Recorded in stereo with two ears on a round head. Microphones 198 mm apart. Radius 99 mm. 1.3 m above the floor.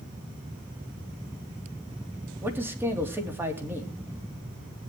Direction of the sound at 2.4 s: 10° right (ahead or behind).